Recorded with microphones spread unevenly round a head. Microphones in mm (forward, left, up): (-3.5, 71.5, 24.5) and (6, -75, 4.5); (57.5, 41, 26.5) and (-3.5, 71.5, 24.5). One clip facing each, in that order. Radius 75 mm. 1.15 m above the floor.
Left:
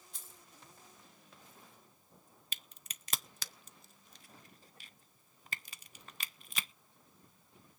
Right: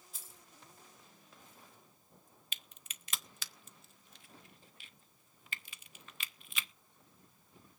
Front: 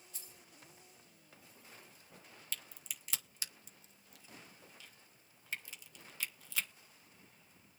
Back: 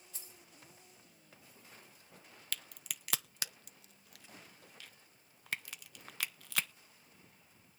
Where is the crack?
140° left, 0.7 m.